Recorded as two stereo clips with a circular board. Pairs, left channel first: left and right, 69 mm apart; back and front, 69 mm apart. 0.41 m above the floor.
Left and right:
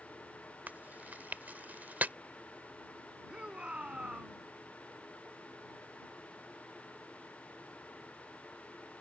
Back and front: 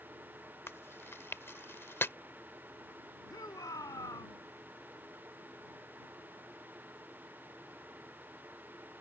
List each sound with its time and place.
0.7 s chewing: 145° right
3.3 s a shout: 165° right